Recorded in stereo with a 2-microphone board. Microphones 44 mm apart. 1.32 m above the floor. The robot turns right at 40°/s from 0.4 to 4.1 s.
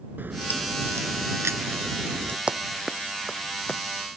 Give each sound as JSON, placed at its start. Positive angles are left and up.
{"t": 0.2, "sound": "a crack", "azimuth_deg": -135}
{"t": 2.5, "sound": "running footsteps", "side_deg": -25}